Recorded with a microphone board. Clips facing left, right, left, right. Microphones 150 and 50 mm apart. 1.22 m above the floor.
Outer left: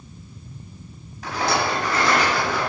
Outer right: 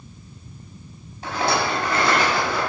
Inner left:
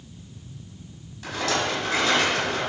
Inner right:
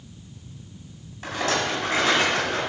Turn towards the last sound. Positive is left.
turn(degrees=-30)  # may be behind; listen again after turning